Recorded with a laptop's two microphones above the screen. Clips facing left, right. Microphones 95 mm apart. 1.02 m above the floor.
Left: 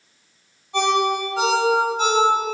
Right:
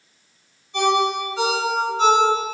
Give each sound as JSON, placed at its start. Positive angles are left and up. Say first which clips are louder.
{"t": 0.7, "sound": "a ringtone", "louder": "even", "side_deg": 70, "distance_m": 1.6}